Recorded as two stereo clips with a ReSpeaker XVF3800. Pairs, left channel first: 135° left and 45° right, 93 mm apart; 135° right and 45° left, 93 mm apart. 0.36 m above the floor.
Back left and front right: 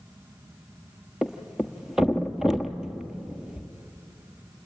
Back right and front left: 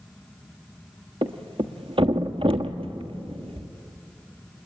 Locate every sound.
1.2 s a thud: 40° left, 1.2 m